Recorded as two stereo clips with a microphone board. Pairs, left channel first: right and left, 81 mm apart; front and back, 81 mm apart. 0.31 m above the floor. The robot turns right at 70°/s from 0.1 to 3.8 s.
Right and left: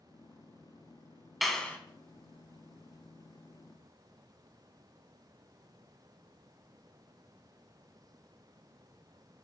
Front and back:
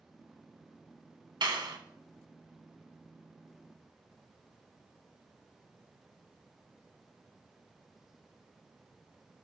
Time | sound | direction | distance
1.4 | a clap | straight behind | 1.9 m